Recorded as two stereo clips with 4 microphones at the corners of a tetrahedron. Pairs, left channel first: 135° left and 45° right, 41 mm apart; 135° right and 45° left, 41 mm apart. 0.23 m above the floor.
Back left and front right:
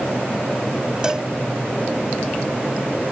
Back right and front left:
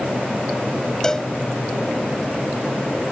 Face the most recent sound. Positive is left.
turn(degrees=-85)